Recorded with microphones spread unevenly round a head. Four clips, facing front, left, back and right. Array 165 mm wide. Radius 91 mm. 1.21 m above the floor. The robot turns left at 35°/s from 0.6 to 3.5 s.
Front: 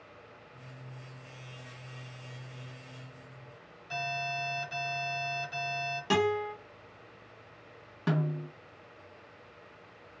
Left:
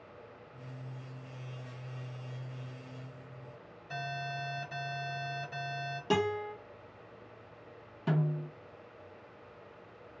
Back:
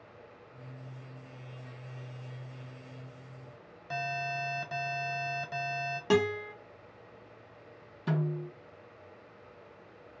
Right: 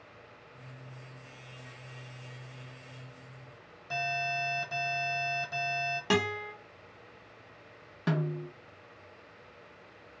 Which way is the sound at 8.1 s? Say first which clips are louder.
Right 1 dB, front 1 dB; 40° right.